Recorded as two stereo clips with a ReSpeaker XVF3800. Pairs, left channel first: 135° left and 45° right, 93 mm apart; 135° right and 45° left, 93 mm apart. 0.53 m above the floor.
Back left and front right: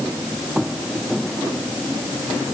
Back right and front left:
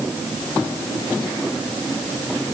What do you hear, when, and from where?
Only background noise.